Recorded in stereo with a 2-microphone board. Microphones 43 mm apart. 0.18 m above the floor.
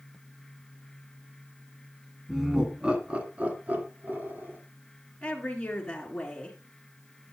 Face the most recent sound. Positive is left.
turn(degrees=20)  # may be behind; listen again after turning